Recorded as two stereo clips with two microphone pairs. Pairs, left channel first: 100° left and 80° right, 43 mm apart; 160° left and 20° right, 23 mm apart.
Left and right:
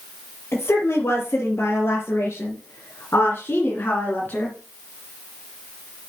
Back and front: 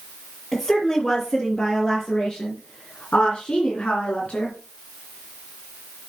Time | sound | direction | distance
0.5 | a woman speaking | 100° left | 5 m